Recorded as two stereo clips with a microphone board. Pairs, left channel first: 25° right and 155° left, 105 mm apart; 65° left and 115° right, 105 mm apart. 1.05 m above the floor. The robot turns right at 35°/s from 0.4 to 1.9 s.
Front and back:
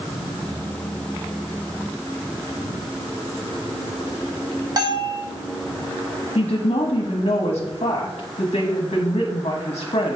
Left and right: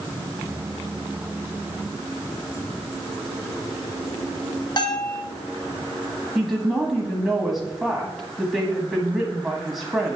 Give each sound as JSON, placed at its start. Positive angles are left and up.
{"t": 4.8, "sound": "a bell", "azimuth_deg": 110, "distance_m": 1.5}
{"t": 6.3, "sound": "a woman speaking", "azimuth_deg": -30, "distance_m": 1.2}